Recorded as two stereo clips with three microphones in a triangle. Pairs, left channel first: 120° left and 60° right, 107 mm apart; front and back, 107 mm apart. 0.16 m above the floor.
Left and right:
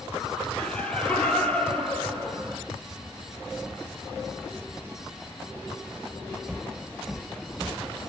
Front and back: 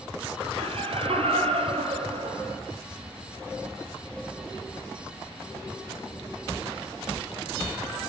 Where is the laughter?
160° right, 4.5 m.